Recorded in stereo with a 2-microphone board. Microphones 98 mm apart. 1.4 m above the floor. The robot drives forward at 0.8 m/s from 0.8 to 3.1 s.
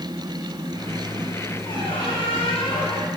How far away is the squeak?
About 3 m.